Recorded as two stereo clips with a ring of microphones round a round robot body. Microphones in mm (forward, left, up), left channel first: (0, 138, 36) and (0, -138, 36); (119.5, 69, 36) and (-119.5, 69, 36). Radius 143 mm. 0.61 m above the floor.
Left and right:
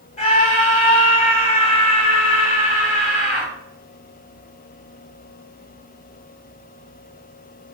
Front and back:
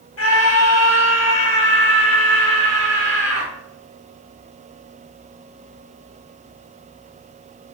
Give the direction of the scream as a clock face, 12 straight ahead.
11 o'clock.